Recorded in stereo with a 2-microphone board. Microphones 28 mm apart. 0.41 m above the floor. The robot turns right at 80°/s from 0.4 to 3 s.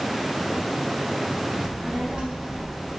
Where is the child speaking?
105° right, 0.9 m; by 2.9 s straight ahead, 0.9 m.